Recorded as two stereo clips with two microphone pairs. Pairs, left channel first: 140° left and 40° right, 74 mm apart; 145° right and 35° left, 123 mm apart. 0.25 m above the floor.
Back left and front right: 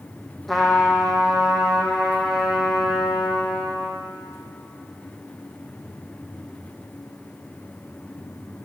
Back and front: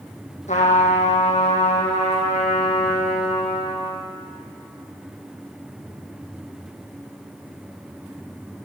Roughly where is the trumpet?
Behind right.